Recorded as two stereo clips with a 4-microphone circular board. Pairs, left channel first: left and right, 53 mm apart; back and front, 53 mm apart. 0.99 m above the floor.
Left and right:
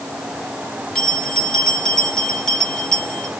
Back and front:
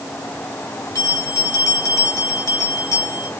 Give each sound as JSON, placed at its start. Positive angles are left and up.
{"t": 0.9, "sound": "a bell", "azimuth_deg": 170, "distance_m": 1.6}